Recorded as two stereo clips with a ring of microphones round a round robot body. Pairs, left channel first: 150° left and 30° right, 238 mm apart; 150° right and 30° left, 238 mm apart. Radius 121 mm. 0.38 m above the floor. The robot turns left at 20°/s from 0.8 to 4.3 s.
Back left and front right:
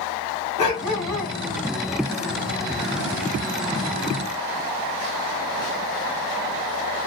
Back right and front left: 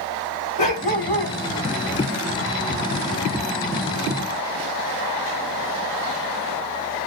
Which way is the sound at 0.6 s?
150° left.